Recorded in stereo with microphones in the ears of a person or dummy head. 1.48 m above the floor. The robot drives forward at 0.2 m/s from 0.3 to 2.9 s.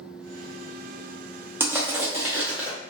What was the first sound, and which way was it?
Crushing, 5° right (ahead or behind).